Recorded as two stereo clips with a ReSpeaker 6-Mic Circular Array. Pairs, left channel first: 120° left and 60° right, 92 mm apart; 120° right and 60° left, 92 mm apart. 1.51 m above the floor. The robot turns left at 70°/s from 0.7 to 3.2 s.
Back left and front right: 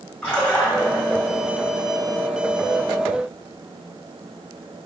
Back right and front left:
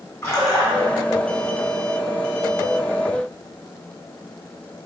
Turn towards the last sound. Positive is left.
turn(degrees=15)